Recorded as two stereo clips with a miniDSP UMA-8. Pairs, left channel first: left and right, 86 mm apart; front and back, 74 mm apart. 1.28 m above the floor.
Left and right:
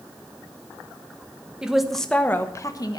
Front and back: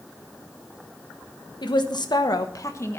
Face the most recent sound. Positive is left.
turn(degrees=55)